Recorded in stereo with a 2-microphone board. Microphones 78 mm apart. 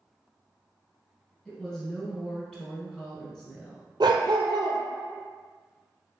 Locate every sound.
1.4 s a woman speaking: 10° left (ahead or behind), 1.2 m
4.0 s a dog barking: 70° right (ahead or behind), 0.9 m